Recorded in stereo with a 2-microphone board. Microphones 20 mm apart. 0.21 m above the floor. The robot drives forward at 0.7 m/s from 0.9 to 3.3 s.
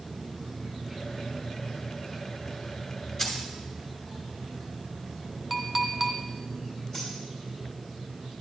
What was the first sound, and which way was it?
Keys jangling, 10° left (ahead or behind).